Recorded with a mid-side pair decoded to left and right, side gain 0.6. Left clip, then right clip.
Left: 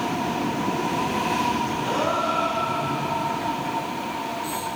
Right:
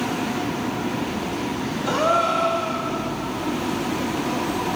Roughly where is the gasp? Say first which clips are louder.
Right 6 dB; ahead right.